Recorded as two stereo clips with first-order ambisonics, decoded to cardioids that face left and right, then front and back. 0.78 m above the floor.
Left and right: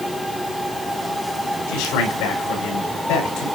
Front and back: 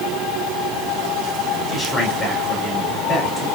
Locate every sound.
1.7 s a man speaking: 85° left, 7 m